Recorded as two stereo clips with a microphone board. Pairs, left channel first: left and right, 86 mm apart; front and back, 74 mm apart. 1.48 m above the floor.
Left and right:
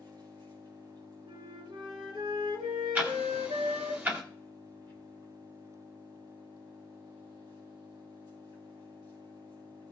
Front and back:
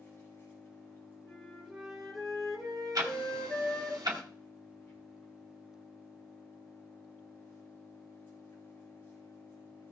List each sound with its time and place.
0.0 s an engine running: 60° right, 4 m
1.2 s a flute: 85° right, 4.5 m
3.0 s ticking: 155° right, 1.9 m